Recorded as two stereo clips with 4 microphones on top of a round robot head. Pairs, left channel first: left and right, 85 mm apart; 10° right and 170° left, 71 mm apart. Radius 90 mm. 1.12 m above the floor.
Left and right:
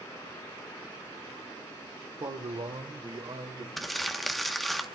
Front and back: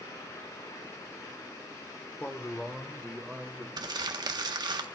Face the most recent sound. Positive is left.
turn(degrees=180)